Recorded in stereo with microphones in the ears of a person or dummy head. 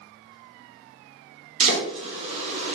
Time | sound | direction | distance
1.6 | chopping | 25° right (ahead or behind) | 0.6 m